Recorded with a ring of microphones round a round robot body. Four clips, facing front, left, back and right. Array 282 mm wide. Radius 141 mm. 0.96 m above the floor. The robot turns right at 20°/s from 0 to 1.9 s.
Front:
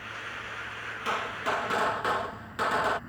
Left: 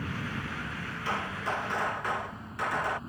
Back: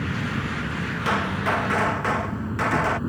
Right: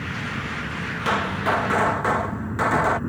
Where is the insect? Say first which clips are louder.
Right 6 dB, back 12 dB; 175° right; by 3.1 s 140° right.